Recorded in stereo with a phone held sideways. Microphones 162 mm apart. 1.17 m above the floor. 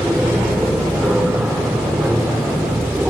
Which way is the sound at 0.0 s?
5° right (ahead or behind).